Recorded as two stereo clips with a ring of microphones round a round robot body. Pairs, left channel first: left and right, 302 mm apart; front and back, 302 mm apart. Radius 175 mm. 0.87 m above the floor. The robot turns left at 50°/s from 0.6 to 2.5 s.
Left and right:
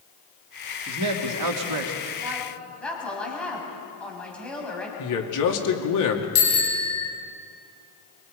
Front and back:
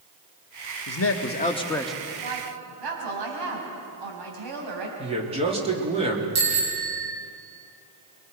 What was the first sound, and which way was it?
A man speaking, 40° right.